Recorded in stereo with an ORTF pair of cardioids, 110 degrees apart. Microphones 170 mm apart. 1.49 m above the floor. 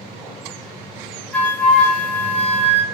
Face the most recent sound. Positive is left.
turn(degrees=5)